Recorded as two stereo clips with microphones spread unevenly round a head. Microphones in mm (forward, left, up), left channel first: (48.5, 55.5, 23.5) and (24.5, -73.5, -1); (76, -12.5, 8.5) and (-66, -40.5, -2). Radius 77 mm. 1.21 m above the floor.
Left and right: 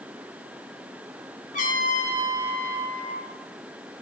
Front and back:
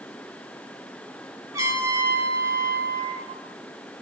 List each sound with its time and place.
1.5 s a trumpet: 120° left, 3.5 m